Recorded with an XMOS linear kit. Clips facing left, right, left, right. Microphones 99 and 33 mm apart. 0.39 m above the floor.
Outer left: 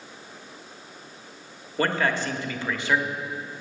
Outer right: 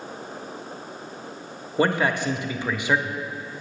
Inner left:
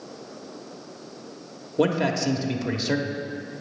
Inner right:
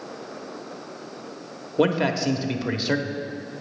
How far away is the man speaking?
About 0.9 m.